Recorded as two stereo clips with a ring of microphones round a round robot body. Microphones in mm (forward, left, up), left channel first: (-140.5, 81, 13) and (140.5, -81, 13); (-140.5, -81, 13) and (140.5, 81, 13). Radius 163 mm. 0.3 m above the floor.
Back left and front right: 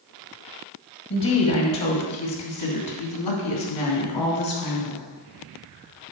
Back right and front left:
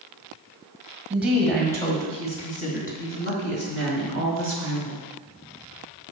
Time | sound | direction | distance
1.1 | a woman speaking | 110° left | 1.8 m